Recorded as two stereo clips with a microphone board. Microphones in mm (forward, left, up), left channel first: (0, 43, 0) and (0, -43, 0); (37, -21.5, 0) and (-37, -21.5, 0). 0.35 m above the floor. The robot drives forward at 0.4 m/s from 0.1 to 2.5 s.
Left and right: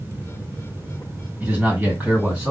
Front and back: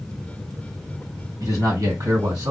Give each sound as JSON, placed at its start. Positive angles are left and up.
{"t": 1.4, "sound": "a man speaking", "azimuth_deg": -160, "distance_m": 1.8}